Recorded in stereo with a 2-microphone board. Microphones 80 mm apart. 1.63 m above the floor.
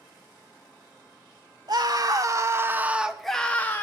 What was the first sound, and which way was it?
A scream, 55° right (ahead or behind).